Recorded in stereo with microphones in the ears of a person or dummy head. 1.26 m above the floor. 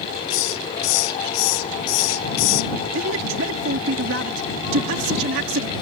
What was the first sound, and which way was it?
A hiss, 75° left (ahead or behind).